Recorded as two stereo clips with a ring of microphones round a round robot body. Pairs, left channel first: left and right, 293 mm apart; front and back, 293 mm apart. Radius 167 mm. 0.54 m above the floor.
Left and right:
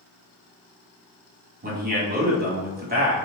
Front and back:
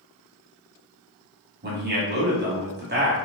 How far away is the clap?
I don't hear a clap.